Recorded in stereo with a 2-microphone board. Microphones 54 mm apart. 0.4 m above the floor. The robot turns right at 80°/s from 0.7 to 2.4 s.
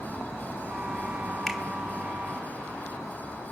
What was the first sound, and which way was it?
A finger snap, 5° left (ahead or behind).